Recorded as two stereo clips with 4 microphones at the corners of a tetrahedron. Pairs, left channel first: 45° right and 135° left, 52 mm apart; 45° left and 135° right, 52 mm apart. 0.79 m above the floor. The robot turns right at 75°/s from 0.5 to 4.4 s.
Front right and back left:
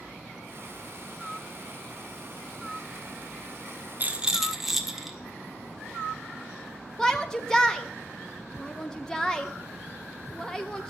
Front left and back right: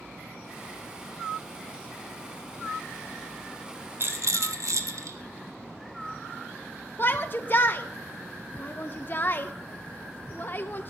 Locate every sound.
4.0 s a rattle: 170° right, 1.1 m; by 5.2 s 140° right, 1.1 m
7.0 s a shout: 25° left, 0.5 m